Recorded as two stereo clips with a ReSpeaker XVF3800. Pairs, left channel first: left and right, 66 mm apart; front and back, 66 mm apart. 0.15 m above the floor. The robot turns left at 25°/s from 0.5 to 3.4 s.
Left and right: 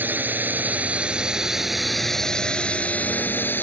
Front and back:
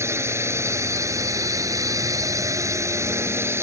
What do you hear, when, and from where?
0.0 s a drone: 145° right; by 3.6 s 140° left